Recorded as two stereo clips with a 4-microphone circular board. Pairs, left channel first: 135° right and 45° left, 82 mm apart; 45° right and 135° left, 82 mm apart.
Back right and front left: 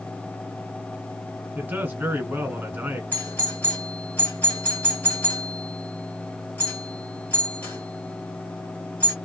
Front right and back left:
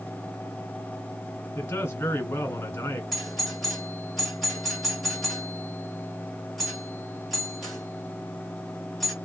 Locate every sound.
1.6 s a man speaking: 5° right, 1.5 m
3.1 s a doorbell: 130° right, 1.8 m